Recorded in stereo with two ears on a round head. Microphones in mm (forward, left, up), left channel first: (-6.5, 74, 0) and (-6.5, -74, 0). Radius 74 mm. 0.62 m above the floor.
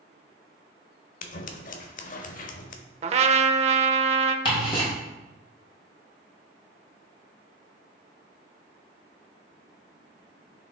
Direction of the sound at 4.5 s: 30° left (ahead or behind).